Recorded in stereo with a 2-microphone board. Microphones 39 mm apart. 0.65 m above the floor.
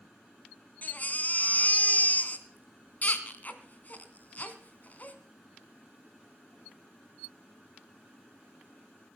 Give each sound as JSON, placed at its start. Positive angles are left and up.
{"t": 0.8, "sound": "a baby crying", "side_deg": 45, "distance_m": 2.0}